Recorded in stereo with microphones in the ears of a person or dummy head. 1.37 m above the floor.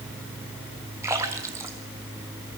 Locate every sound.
1.0 s a splash: 15° right (ahead or behind), 2 m